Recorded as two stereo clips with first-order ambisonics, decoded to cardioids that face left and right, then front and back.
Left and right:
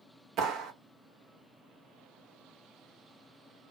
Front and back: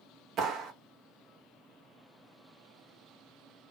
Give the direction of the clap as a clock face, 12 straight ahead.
4 o'clock.